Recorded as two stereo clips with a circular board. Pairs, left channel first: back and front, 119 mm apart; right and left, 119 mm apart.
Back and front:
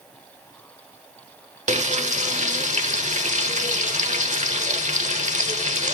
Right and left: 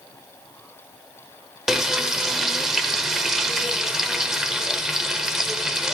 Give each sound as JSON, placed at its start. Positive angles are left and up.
{"t": 1.7, "sound": "frying", "azimuth_deg": 5, "distance_m": 0.8}